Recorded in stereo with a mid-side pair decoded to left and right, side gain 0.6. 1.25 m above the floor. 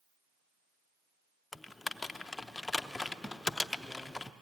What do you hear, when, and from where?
1.5 s typing on a keyboard: 15° left, 0.7 m